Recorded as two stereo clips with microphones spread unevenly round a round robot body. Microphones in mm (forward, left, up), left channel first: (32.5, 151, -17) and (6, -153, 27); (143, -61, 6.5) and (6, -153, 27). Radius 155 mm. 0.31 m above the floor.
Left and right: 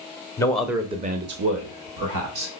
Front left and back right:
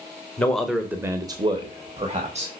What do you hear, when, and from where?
0.4 s a man speaking: 70° left, 0.9 m; by 2.5 s 100° right, 1.6 m